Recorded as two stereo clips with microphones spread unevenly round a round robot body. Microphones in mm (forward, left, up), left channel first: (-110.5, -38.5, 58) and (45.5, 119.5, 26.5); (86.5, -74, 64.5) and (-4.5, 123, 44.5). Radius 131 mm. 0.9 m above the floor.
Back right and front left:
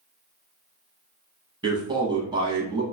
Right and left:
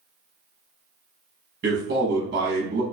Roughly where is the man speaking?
Left.